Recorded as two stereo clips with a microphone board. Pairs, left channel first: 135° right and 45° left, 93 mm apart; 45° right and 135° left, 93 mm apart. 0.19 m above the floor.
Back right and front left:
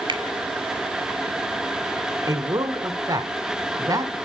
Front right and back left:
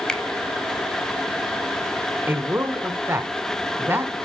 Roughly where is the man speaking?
Left.